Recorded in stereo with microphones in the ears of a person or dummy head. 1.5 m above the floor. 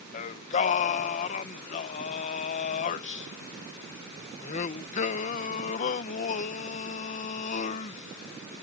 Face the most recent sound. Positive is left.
turn(degrees=40)  # may be behind; listen again after turning